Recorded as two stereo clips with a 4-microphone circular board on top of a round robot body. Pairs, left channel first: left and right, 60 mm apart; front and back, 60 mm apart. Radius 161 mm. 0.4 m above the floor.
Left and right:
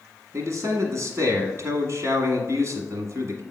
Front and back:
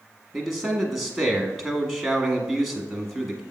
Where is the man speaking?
85° right, 1.5 m.